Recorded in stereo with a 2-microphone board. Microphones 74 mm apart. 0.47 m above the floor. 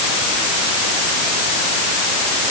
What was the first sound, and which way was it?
Only background noise.